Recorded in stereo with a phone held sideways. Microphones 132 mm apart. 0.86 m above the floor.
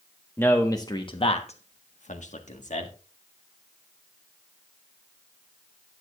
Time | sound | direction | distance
0.4 | a man speaking | 15° left (ahead or behind) | 1.4 m